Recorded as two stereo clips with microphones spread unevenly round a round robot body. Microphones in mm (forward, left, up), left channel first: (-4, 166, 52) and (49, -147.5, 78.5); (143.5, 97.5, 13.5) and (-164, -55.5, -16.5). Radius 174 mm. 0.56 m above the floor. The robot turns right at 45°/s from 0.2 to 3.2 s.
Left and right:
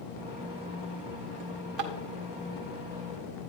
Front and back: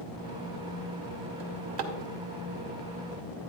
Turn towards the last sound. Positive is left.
turn(degrees=-55)